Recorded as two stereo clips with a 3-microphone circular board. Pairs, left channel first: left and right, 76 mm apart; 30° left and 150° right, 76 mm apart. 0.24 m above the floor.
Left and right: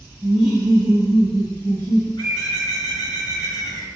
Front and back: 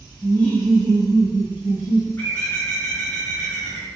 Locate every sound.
0.2 s laughter: 5° right, 1.2 m; by 2.1 s 160° right, 1.3 m
2.2 s a bird: 90° left, 1.6 m